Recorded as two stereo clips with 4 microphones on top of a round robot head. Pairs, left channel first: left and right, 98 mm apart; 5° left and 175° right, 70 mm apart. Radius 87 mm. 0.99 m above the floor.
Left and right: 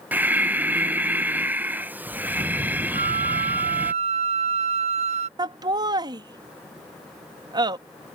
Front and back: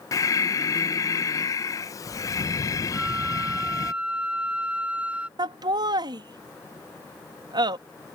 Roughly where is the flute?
Right.